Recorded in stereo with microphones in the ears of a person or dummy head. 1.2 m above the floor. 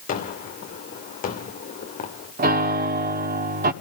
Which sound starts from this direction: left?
A gunshot, at 0.1 s.